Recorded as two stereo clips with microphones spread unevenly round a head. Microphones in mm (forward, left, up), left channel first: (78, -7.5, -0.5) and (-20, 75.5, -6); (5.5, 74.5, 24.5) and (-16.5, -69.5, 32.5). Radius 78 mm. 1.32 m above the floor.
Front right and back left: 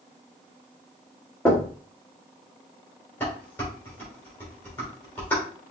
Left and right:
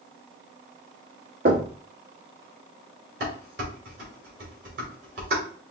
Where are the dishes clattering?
120° right, 2.5 m.